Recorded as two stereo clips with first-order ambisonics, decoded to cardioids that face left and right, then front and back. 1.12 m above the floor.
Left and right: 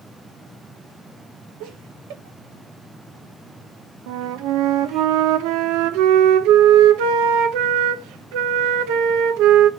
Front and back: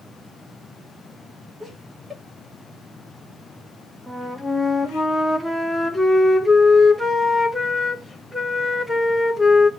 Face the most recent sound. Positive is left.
turn(degrees=-90)